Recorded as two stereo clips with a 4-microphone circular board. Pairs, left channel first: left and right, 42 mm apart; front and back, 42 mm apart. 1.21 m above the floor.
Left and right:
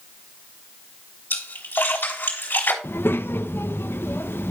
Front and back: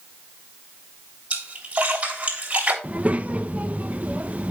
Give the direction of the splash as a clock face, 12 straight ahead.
8 o'clock.